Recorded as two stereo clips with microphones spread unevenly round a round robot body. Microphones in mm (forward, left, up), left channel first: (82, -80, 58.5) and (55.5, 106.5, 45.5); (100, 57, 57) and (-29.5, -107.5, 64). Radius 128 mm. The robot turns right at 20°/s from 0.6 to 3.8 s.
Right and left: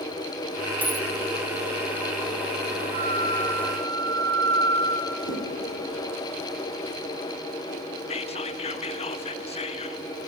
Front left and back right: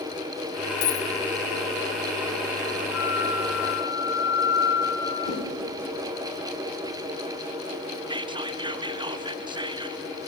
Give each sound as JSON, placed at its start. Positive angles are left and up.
{"t": 0.8, "sound": "a dropped coin", "azimuth_deg": 15, "distance_m": 1.1}
{"t": 2.9, "sound": "a flute", "azimuth_deg": 50, "distance_m": 1.4}
{"t": 5.2, "sound": "a whoosh", "azimuth_deg": 15, "distance_m": 5.5}
{"t": 8.1, "sound": "whispering", "azimuth_deg": -85, "distance_m": 0.6}